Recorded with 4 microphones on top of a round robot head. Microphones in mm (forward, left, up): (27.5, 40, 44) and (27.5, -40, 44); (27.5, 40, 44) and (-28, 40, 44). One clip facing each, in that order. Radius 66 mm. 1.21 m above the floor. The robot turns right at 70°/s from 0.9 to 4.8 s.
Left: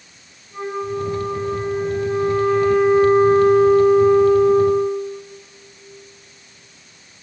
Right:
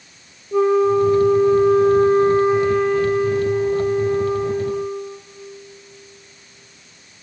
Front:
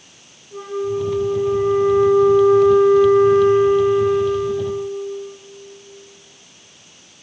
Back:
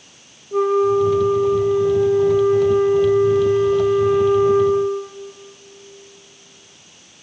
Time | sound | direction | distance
0.5 | a flute | 130° right | 1.2 m